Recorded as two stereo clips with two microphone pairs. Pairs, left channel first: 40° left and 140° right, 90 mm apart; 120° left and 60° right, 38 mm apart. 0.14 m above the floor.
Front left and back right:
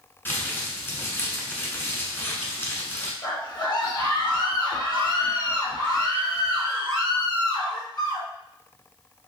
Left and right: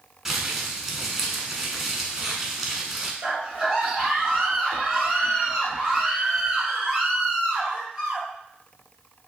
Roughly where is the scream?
Ahead.